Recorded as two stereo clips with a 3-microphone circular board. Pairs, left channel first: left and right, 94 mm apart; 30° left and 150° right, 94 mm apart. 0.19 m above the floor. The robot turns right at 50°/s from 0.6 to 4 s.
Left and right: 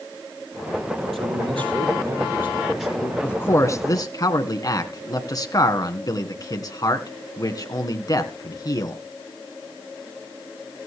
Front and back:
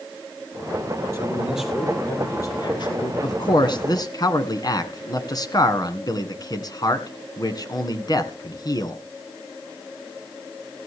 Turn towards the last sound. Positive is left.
turn(degrees=60)